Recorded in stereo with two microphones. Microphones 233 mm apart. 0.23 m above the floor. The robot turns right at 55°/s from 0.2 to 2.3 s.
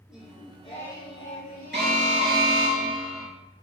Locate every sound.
0.1 s singing: 5° right, 3 m; by 2.7 s 115° left, 3 m
1.7 s an alarm: 50° right, 3.5 m; by 3.3 s 20° right, 3.5 m